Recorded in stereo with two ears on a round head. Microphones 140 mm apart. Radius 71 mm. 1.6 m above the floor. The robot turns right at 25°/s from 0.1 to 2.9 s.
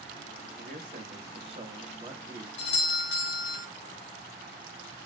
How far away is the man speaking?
About 1.1 m.